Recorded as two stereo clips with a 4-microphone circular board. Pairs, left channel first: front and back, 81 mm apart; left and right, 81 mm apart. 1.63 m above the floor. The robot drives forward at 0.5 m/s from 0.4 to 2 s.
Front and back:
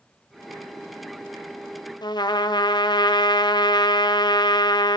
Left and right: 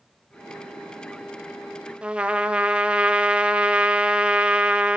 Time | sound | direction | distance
2.0 | a trumpet | 15° right | 0.5 m